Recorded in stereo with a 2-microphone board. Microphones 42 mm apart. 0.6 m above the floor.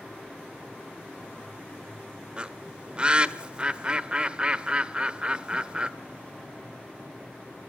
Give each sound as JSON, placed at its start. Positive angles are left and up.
{"t": 2.4, "sound": "a bird", "side_deg": -25, "distance_m": 0.7}